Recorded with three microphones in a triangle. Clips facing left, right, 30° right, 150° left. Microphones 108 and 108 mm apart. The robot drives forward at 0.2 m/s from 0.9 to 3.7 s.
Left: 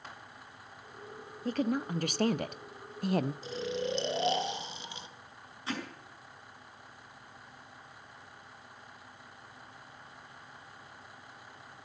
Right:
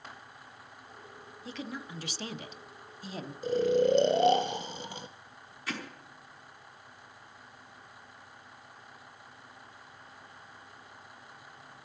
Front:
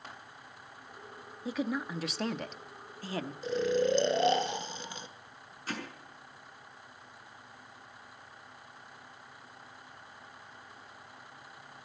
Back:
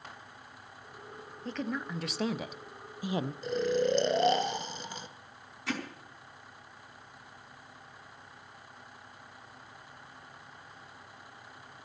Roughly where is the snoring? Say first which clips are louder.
Right 10 dB, front 1 dB; behind right.